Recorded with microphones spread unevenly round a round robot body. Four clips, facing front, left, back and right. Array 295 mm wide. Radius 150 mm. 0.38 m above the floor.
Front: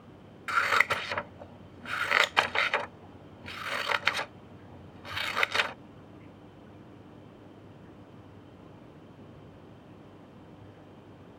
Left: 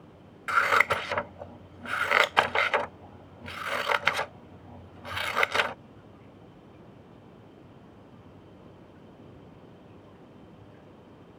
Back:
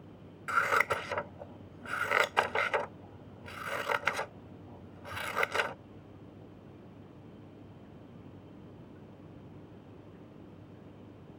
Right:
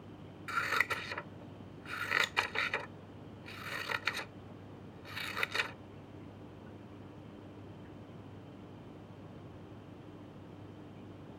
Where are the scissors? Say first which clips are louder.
Left 11 dB, front 2 dB; 85° left.